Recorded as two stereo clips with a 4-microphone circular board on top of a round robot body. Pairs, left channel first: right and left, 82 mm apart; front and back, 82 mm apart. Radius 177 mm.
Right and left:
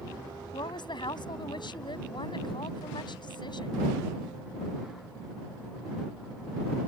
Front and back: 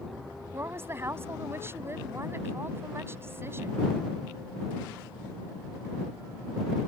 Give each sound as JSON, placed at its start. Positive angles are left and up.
{"t": 0.5, "sound": "a woman speaking", "azimuth_deg": -120}